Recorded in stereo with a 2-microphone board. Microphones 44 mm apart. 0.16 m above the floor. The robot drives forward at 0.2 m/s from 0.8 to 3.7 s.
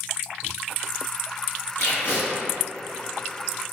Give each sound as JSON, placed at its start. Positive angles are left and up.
{"t": 1.8, "sound": "tape being pulled", "side_deg": 55, "distance_m": 1.1}